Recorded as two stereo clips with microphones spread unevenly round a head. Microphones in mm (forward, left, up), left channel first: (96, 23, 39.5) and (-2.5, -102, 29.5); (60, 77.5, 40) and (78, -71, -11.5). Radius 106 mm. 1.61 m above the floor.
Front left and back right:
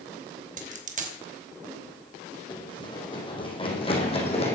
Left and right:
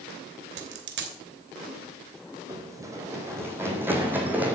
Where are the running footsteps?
10° right, 4.5 m; by 4.5 s 5° left, 5 m.